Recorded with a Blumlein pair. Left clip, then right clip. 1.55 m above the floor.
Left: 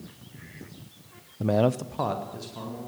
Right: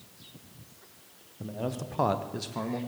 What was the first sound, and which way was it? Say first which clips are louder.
A man speaking: left 12 dB; 70° left.